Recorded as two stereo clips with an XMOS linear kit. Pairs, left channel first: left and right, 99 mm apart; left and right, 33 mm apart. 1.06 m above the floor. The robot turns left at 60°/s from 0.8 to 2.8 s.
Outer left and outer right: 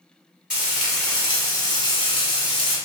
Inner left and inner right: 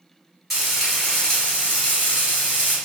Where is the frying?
170° right, 1.7 m; by 2.8 s 70° left, 1.7 m.